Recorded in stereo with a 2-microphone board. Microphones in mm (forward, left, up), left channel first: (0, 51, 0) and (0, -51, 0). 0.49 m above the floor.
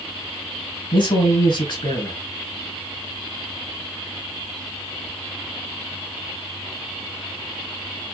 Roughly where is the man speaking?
Left.